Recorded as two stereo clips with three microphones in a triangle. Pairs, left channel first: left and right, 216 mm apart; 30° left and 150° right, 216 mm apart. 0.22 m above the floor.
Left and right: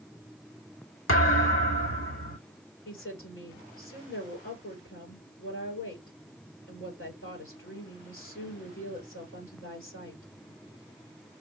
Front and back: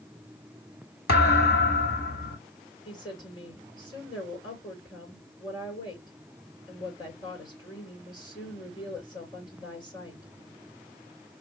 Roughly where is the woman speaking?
Left.